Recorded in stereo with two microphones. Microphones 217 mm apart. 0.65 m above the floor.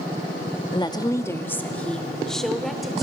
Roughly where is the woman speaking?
Left.